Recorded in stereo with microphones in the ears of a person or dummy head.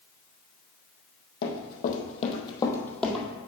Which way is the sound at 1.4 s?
60° left (ahead or behind).